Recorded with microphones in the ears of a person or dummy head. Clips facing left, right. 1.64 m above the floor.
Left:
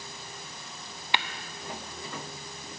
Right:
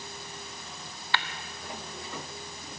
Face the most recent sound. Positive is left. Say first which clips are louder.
# left 1 dB
turn(degrees=15)  # may be behind; listen again after turning